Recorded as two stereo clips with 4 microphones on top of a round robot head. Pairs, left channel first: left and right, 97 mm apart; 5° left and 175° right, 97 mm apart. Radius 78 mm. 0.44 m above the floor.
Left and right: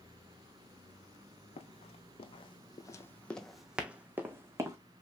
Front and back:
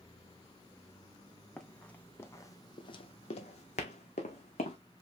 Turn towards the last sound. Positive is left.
turn(degrees=-30)